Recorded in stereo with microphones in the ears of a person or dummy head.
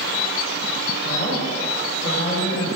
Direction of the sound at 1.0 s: 45° left (ahead or behind).